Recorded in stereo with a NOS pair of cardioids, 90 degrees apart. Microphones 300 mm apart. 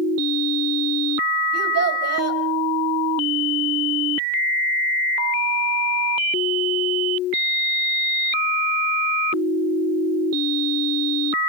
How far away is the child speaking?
About 5 m.